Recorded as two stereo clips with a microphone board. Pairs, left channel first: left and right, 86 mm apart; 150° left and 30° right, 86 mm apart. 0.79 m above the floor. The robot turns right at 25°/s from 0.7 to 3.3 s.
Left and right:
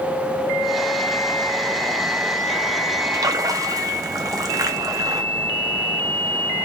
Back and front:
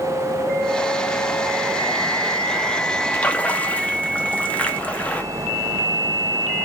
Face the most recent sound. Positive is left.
turn(degrees=-135)